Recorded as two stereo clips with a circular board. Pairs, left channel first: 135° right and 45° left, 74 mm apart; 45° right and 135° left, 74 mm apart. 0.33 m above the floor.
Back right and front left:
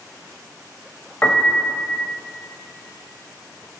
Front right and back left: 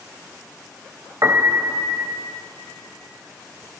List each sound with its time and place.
1.2 s a piano: 165° left, 0.5 m